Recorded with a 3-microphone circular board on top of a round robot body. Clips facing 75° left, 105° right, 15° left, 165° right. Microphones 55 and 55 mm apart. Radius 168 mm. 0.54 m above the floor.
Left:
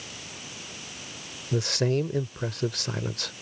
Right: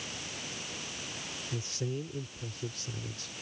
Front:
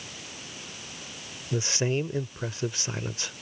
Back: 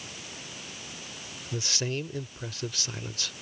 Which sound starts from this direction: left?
A man speaking, at 1.5 s.